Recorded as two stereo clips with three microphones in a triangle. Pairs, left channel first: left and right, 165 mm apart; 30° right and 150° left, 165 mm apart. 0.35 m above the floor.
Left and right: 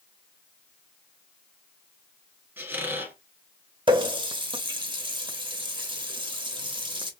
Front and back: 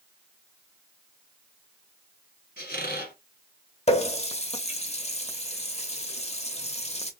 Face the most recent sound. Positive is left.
turn(degrees=-45)